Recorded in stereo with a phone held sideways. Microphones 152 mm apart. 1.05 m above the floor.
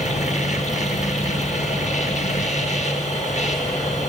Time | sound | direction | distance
0.0 | a machine running | 50° left (ahead or behind) | 1.5 m